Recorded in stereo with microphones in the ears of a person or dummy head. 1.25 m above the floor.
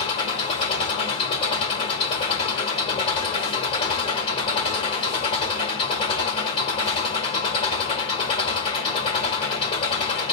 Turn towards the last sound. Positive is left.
turn(degrees=35)  # may be behind; listen again after turning